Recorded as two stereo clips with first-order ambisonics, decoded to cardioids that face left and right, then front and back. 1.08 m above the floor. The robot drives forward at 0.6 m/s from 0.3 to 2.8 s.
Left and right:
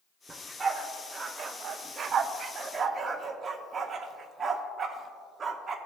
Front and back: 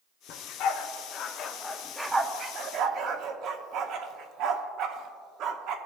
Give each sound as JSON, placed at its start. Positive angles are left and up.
{"t": 0.3, "sound": "a dog barking", "azimuth_deg": -15, "distance_m": 1.1}